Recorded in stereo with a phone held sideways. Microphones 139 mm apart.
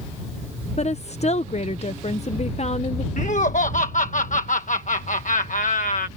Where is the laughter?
70° left (ahead or behind).